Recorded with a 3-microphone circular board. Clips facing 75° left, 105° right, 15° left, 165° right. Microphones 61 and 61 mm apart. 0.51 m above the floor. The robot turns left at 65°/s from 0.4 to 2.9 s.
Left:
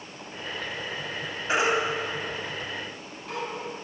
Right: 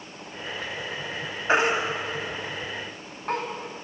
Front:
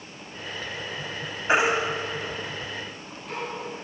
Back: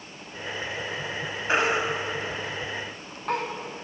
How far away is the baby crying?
About 1.8 m.